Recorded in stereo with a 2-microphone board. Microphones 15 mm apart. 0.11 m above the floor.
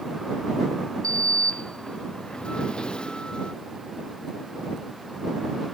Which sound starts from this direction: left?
A sliding door, at 1.0 s.